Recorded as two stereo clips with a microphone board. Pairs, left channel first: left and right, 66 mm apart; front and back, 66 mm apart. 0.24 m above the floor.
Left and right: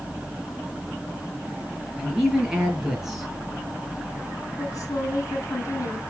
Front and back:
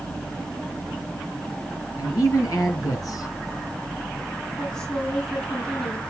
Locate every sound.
2.0 s a man speaking: 10° right, 5 m
4.6 s a woman speaking: 75° left, 3 m